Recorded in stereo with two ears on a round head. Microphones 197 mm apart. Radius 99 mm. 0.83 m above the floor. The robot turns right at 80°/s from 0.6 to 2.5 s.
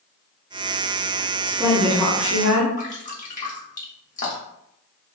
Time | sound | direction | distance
1.4 | a woman speaking | 40° right | 1.5 m
2.8 | dripping | 35° left (ahead or behind) | 1.2 m